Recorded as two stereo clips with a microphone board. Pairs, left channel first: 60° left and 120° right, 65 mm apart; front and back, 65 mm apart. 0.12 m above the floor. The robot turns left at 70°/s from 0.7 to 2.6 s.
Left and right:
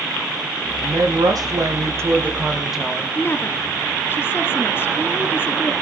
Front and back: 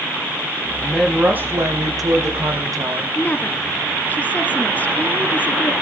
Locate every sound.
0.8 s a woman speaking: 80° right, 5.5 m; by 3.0 s 155° left, 5.5 m
3.1 s a woman speaking: 45° left, 1.6 m